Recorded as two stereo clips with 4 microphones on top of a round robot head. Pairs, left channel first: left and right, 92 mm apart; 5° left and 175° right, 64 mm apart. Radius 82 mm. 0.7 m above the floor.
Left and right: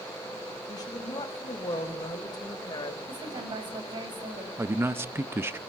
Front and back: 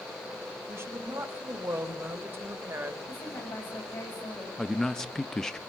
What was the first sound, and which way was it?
A woman speaking, 140° left.